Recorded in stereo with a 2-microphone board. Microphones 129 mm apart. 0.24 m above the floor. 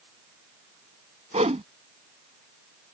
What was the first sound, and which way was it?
A whoosh, 60° right (ahead or behind).